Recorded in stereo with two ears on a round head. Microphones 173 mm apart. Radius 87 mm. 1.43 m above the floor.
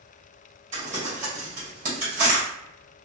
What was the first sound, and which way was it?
Crumpling, 35° right (ahead or behind).